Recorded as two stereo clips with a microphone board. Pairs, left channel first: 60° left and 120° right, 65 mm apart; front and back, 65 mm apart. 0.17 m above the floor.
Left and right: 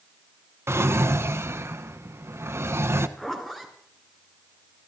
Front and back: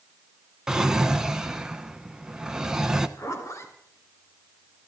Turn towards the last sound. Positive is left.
turn(degrees=-25)